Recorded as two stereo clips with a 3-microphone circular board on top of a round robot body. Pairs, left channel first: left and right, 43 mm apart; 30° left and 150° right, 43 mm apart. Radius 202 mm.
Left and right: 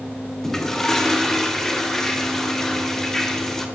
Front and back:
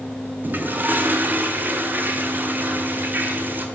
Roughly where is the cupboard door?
I don't hear a cupboard door.